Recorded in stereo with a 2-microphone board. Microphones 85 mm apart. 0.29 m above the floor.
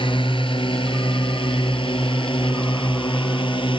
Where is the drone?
75° left (ahead or behind).